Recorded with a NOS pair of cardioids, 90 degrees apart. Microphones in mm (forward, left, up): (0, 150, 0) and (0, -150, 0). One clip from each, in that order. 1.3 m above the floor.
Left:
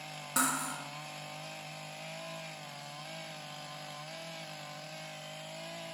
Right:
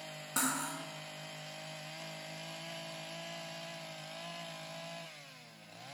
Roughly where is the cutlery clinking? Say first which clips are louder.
Left 3 dB; ahead.